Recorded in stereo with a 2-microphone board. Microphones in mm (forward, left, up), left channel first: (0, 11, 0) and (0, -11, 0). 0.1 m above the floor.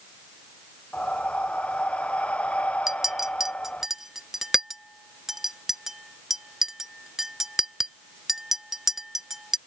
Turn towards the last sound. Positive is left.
turn(degrees=-20)  # may be behind; listen again after turning